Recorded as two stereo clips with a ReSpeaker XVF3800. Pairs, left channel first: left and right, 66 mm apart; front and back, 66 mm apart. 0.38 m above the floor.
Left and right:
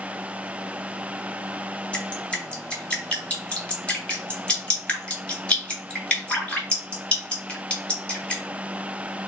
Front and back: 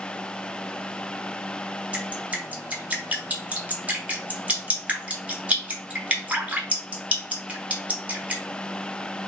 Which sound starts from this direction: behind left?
Dripping, at 1.9 s.